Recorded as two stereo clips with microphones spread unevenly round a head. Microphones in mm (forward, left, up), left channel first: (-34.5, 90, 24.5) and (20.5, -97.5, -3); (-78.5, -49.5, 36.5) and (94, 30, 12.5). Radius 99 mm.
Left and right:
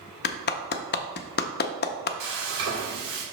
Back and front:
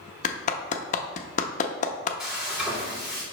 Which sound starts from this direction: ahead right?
Frying, at 2.2 s.